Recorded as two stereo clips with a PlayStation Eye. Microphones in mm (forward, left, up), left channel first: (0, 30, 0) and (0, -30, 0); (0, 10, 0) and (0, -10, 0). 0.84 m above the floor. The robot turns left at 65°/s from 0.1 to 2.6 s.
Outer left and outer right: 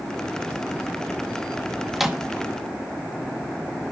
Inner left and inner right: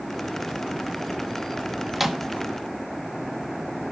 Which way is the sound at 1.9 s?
Centre (ahead or behind).